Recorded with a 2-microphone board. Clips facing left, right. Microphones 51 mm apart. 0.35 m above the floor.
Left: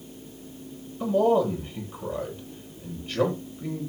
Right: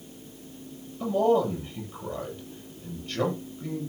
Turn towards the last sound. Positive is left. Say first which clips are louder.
# left 1 dB
turn(degrees=10)  # may be behind; listen again after turning